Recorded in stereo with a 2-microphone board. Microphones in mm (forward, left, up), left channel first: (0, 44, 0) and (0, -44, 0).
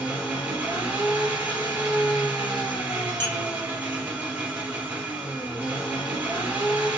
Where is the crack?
I don't hear a crack.